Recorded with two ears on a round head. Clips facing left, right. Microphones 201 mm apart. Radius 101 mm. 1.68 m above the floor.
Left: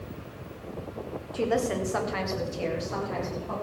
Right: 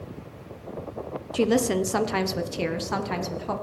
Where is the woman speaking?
40° right (ahead or behind), 0.9 m; by 3.5 s 75° right (ahead or behind), 1.8 m.